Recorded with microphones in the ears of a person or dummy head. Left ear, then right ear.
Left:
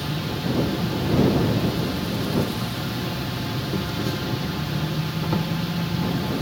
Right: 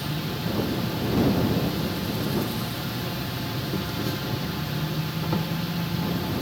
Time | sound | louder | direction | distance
0.0 | an insect | left 2 dB | centre (ahead or behind) | ?